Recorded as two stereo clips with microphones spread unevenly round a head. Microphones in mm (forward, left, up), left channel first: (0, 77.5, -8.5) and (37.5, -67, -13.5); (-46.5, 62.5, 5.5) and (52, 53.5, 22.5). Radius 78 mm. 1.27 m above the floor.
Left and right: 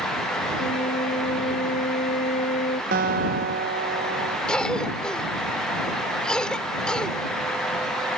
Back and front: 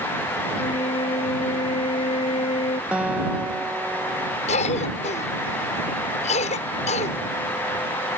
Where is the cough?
170° right.